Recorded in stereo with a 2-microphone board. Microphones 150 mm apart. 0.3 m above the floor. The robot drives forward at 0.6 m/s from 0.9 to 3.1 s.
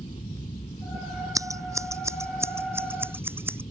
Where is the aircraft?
45° left (ahead or behind); by 3.7 s 40° left (ahead or behind).